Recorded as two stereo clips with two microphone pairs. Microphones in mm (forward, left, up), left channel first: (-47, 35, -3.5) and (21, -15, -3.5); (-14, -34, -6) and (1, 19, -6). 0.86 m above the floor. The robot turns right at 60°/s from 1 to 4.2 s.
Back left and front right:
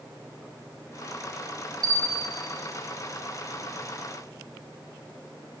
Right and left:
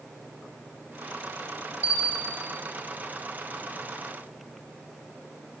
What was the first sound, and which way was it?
A bell, 130° left.